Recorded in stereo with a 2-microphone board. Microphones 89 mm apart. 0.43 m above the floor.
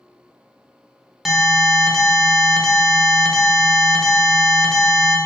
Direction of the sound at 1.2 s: Centre (ahead or behind).